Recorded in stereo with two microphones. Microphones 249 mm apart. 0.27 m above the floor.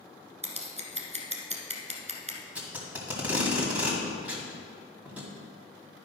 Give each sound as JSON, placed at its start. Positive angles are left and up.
{"t": 0.4, "sound": "scissors", "side_deg": -30, "distance_m": 1.3}
{"t": 2.5, "sound": "tape being pulled", "side_deg": -5, "distance_m": 1.9}